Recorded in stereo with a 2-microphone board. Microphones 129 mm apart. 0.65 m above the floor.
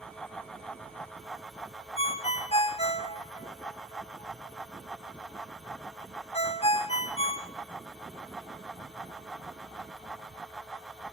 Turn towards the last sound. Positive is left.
turn(degrees=55)  # may be behind; listen again after turning